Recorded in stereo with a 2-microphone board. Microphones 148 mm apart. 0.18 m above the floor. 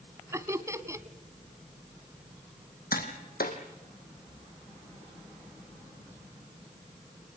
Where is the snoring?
I don't hear snoring.